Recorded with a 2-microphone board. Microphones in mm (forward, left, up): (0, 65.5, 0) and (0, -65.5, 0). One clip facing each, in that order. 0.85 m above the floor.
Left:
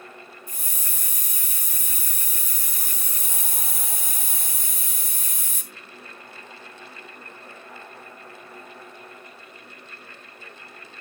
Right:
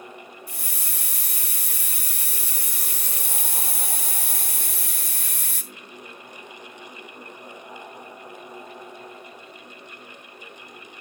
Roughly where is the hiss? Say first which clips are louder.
Right 2 dB; right.